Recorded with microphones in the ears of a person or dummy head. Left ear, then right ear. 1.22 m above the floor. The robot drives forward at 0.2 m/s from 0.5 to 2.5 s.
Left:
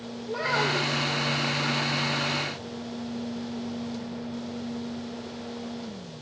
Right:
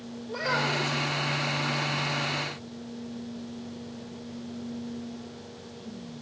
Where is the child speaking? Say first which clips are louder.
Left 2 dB; 20° left (ahead or behind), 3.5 m.